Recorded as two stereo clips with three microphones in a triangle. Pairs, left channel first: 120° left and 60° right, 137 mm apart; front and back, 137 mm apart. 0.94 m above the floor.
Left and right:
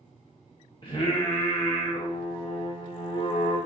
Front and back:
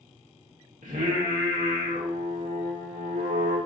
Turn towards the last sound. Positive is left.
turn(degrees=170)